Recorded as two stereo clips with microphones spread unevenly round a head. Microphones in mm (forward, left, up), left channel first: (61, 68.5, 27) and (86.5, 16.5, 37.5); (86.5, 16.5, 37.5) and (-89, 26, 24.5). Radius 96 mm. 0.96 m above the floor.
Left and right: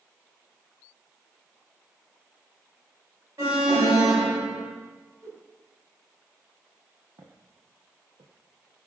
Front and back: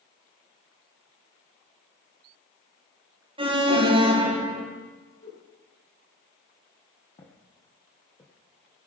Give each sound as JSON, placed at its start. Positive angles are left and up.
{"t": 3.4, "sound": "an alarm", "azimuth_deg": -125, "distance_m": 2.5}
{"t": 5.2, "sound": "a whoosh", "azimuth_deg": -35, "distance_m": 4.5}
{"t": 7.2, "sound": "footsteps", "azimuth_deg": -65, "distance_m": 2.5}